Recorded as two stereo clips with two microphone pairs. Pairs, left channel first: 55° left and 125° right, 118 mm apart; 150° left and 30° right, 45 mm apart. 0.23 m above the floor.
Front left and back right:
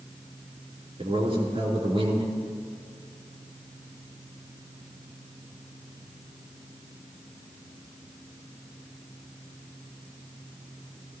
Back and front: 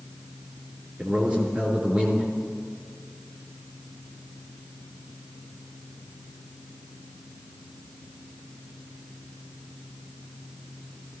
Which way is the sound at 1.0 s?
95° right.